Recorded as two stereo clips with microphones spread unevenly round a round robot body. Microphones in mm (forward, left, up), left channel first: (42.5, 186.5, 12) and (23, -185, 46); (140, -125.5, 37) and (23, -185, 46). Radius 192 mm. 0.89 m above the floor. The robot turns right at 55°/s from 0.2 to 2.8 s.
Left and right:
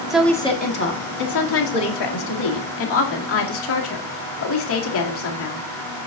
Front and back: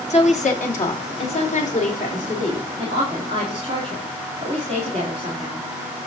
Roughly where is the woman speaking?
Ahead.